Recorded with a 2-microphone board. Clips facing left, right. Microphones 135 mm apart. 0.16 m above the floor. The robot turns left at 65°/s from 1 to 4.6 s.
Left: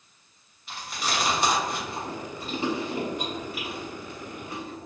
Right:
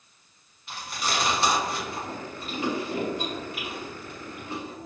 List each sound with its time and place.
0.7 s chewing: centre (ahead or behind), 1.0 m; by 4.9 s 25° right (ahead or behind), 1.0 m